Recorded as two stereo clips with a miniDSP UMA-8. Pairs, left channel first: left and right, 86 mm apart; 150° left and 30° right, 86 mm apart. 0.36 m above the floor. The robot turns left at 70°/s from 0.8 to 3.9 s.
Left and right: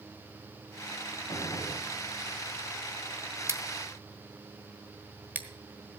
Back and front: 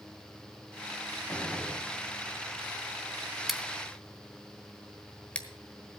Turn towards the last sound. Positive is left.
turn(degrees=-140)